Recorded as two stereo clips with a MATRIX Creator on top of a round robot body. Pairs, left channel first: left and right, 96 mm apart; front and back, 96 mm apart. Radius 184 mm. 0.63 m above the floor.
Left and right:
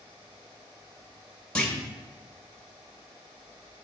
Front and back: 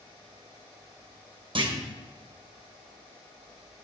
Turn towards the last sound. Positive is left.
turn(degrees=170)